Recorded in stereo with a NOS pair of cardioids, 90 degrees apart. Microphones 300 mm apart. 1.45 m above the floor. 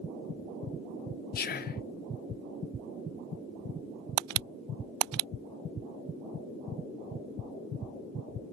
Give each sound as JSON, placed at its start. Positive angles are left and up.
{"t": 1.4, "sound": "whispering", "azimuth_deg": 30, "distance_m": 0.5}